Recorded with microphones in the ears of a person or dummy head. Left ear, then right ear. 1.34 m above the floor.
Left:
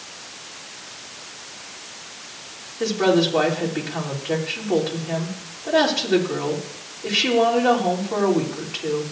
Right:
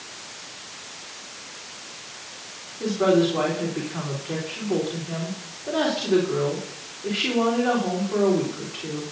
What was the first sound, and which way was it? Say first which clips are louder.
A woman speaking: left 1 dB; 85° left.